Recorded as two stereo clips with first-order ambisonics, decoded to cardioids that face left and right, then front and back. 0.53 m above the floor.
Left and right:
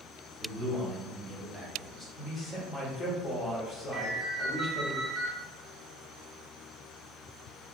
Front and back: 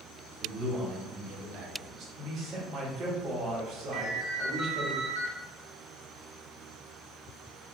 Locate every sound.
0.4 s a man speaking: 135° right, 1.0 m; by 2.0 s 170° left, 1.4 m
2.1 s a man speaking: 145° left, 1.0 m
3.9 s a ringtone: 160° right, 1.0 m